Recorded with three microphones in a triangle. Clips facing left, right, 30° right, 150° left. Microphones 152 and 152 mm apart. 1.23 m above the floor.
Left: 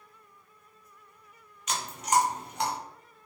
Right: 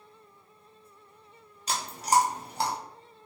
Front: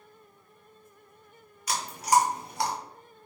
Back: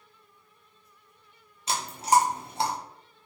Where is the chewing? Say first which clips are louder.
Right 2 dB, back 1 dB; 145° right, 0.6 m.